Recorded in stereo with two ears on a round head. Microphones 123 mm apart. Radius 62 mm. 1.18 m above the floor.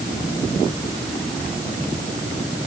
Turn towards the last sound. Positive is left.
No sound to turn to.